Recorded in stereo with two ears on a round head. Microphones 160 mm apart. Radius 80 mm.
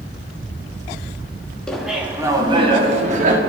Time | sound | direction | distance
1.7 | laughter | 5° left (ahead or behind) | 1.2 m